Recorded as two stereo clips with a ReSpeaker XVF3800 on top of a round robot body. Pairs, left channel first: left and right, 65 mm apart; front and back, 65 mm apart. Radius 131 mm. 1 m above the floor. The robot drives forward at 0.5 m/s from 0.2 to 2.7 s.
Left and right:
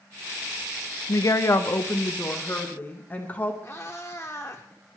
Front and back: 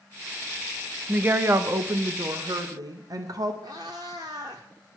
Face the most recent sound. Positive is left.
turn(degrees=155)